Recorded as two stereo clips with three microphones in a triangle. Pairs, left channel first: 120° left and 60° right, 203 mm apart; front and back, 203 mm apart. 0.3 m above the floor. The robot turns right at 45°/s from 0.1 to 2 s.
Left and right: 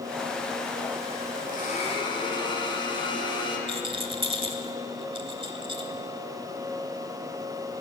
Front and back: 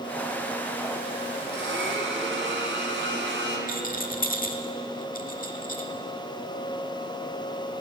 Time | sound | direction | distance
1.5 | a blender | 160° left | 1.9 m
3.7 | a rattle | 10° right | 0.8 m